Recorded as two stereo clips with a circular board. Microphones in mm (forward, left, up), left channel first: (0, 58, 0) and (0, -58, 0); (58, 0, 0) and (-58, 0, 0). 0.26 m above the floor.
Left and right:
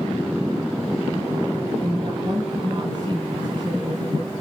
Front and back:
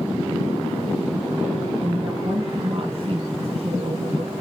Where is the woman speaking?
140° right, 6 m.